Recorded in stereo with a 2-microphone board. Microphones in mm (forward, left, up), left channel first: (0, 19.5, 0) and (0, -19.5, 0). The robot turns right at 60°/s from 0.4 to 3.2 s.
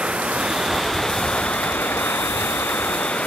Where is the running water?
25° right; by 3.3 s 140° left.